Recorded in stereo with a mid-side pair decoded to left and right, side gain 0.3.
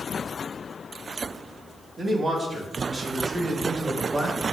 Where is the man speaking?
55° right, 2.5 m; by 4.4 s 45° right, 5 m.